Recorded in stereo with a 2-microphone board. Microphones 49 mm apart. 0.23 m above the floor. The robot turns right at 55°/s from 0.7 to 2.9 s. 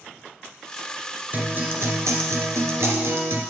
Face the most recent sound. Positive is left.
turn(degrees=-60)